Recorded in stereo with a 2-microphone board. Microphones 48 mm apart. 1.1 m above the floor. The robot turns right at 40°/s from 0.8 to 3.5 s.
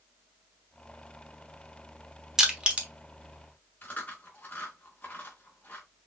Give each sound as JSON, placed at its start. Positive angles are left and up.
{"t": 2.4, "sound": "crushing", "side_deg": -10, "distance_m": 1.2}
{"t": 3.8, "sound": "chewing", "side_deg": 40, "distance_m": 1.9}